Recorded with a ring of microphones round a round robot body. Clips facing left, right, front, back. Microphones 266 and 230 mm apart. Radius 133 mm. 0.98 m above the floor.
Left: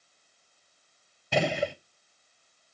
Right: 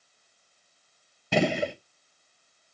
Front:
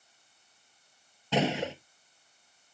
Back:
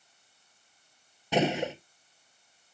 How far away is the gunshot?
About 1.1 m.